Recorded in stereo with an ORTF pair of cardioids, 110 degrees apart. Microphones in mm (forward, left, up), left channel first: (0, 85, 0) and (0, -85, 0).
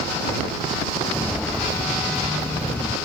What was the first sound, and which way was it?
Footsteps, straight ahead.